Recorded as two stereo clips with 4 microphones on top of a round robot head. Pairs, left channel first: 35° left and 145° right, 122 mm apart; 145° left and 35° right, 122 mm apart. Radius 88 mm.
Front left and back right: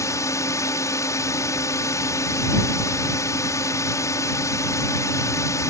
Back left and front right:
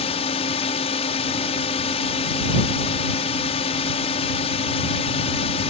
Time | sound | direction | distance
0.0 | a drone | 105° left | ?